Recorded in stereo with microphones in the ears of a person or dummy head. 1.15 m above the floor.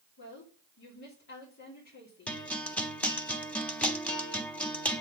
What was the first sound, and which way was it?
A woman speaking, 55° left (ahead or behind).